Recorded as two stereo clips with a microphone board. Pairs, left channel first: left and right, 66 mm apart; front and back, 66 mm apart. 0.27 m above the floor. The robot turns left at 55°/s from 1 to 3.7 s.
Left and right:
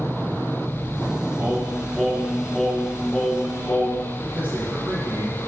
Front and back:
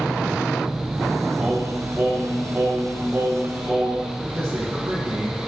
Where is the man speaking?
150° right, 2.5 m.